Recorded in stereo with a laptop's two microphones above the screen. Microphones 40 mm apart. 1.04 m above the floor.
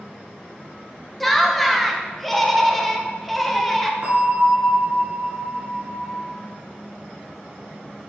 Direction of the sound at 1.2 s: 5° left (ahead or behind).